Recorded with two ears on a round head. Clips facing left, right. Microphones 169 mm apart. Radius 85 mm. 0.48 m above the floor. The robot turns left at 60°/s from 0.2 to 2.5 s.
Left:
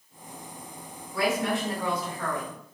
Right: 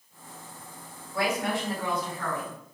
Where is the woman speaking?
Straight behind, 1.6 m; by 2.6 s 100° left, 1.6 m.